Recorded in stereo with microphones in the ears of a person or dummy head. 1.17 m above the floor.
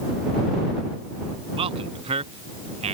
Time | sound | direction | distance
1.6 | a man speaking | 35° right (ahead or behind) | ?